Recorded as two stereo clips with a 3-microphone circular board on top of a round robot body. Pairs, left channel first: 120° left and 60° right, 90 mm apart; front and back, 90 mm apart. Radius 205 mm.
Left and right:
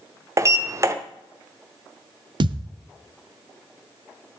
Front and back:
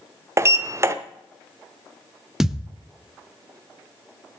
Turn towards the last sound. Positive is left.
turn(degrees=-95)